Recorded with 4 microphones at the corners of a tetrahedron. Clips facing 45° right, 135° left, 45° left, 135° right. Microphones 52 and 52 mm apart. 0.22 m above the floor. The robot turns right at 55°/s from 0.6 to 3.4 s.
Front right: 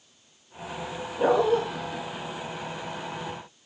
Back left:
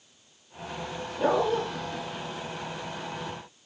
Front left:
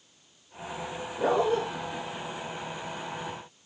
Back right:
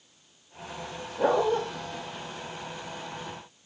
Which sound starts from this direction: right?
A dog barking, at 1.2 s.